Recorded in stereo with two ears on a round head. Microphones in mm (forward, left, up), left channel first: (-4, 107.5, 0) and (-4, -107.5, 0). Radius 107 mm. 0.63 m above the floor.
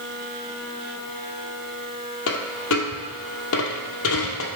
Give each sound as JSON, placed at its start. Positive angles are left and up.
{"t": 2.3, "sound": "a dropped coin", "side_deg": 60, "distance_m": 1.3}